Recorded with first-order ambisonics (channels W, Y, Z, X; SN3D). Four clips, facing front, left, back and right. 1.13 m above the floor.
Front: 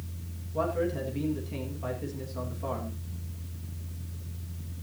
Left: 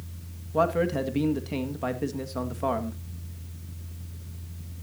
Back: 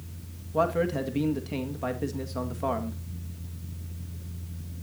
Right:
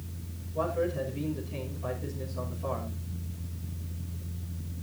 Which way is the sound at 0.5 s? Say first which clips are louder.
Left 6 dB, back 4 dB; 120° left.